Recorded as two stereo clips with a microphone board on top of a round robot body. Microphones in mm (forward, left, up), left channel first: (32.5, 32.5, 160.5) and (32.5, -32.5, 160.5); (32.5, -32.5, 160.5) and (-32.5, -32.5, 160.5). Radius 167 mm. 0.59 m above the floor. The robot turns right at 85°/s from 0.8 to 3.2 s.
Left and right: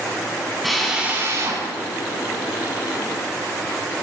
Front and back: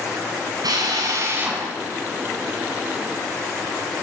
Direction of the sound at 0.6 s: Straight behind.